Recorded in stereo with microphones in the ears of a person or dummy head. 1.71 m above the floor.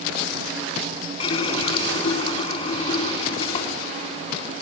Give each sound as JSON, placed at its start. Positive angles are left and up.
{"t": 1.2, "sound": "a running tap", "side_deg": 35, "distance_m": 3.0}